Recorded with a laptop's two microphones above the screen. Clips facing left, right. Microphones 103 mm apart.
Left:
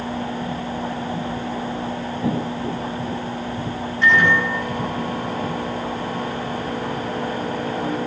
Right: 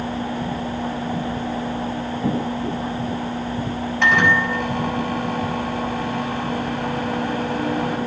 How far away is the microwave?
About 5.5 m.